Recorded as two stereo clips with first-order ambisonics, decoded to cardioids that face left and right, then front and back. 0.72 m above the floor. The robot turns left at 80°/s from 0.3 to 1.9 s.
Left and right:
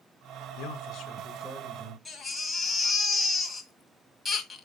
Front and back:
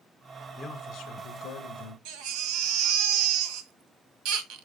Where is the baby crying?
175° left, 1.7 m.